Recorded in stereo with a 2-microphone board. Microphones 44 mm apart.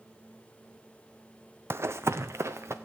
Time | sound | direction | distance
1.7 | running footsteps | 65° right (ahead or behind) | 0.5 m